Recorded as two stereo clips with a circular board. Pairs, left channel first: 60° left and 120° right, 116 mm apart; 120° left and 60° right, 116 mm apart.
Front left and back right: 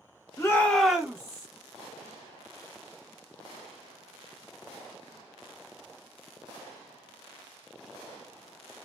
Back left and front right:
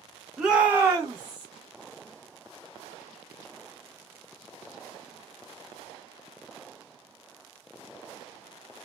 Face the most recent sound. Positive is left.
turn(degrees=-80)